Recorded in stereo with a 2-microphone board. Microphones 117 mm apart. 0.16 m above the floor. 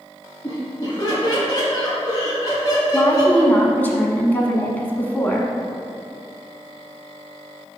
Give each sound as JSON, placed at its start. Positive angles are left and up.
{"t": 0.4, "sound": "laughter", "side_deg": 35, "distance_m": 1.7}
{"t": 2.9, "sound": "a woman speaking", "side_deg": 15, "distance_m": 1.0}